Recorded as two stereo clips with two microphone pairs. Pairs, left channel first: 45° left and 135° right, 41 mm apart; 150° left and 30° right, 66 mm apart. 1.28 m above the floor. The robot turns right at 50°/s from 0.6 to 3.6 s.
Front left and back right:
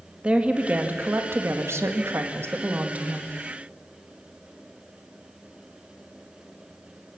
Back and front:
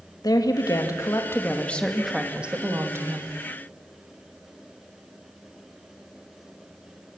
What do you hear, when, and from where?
0.2 s a woman speaking: 165° left, 2.0 m; by 3.3 s 60° right, 2.0 m